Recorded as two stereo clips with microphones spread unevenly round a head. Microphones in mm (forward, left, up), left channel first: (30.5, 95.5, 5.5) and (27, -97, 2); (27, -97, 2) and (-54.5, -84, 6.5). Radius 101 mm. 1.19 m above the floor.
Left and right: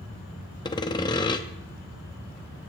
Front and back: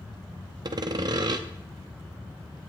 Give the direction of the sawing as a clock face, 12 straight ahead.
7 o'clock.